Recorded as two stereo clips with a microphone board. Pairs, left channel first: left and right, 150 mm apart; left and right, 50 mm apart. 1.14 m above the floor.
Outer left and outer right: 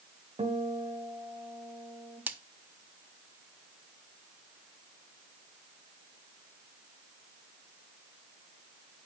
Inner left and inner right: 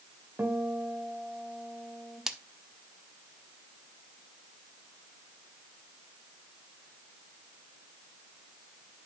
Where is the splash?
10° right (ahead or behind), 0.8 m.